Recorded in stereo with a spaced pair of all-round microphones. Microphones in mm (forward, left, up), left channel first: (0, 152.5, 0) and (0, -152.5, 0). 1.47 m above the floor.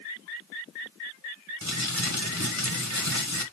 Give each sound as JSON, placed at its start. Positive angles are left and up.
{"t": 1.6, "sound": "crumpling", "side_deg": 60, "distance_m": 1.2}